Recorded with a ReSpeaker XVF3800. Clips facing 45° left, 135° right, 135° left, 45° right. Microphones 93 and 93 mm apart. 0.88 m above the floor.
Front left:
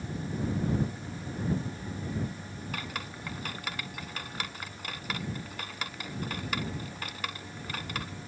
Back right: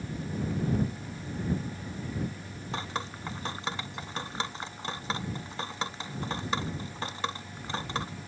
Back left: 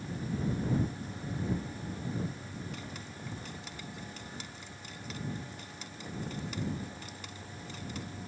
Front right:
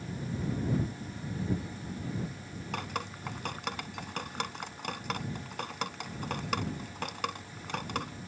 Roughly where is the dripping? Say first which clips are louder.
Back right 5 dB, front right 7 dB; right.